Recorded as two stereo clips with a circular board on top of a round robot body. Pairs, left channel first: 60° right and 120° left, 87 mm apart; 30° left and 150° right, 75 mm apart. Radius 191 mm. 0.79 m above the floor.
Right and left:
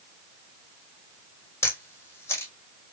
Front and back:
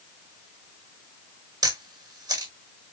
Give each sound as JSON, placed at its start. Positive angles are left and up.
{"t": 1.6, "sound": "a camera shutter", "azimuth_deg": -120, "distance_m": 1.9}